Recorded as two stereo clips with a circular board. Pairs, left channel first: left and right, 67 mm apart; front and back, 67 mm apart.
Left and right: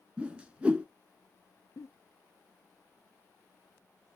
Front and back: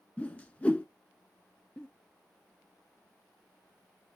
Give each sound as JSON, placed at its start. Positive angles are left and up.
{"t": 0.2, "sound": "a whoosh", "azimuth_deg": -45, "distance_m": 0.6}
{"t": 1.8, "sound": "a giggle", "azimuth_deg": 70, "distance_m": 1.0}